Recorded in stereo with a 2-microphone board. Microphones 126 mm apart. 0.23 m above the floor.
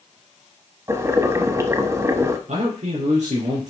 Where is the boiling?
25° right (ahead or behind), 1.0 m.